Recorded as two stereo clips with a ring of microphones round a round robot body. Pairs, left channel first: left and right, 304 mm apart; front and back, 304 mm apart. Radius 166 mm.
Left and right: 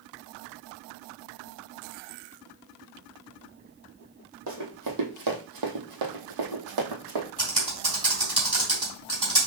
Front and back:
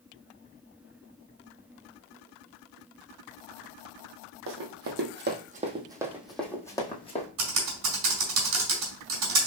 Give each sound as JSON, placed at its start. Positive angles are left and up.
{"t": 4.5, "sound": "running footsteps", "azimuth_deg": -145, "distance_m": 1.3}
{"t": 7.4, "sound": "typing on a keyboard", "azimuth_deg": -160, "distance_m": 2.0}